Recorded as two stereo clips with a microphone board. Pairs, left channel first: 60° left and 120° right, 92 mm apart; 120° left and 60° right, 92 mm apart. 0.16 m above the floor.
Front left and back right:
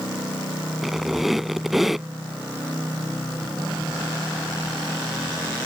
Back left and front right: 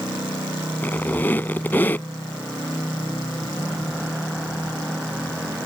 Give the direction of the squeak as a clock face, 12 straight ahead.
7 o'clock.